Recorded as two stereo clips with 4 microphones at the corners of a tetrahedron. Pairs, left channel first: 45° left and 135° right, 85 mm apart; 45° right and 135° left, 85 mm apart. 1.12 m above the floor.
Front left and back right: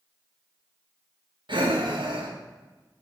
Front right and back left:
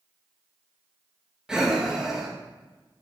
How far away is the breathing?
About 1.5 m.